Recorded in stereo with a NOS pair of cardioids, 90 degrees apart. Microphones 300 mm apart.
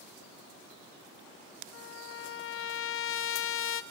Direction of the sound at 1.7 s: 45° left.